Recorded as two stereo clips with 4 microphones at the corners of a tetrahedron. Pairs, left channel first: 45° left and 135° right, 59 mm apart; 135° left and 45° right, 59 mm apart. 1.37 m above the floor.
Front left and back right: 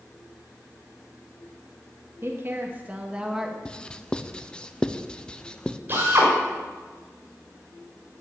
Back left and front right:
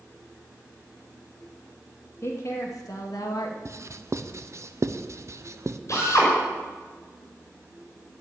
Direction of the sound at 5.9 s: 170° left.